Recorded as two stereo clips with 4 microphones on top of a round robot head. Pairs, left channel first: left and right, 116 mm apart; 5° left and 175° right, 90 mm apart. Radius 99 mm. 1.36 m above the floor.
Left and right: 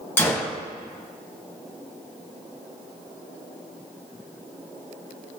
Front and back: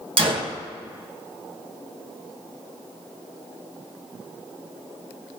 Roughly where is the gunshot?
Behind.